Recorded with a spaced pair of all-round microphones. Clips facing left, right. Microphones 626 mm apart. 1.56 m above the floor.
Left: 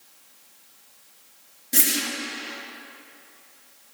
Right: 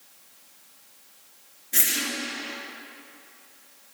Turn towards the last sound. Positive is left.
turn(degrees=65)  # may be behind; listen again after turning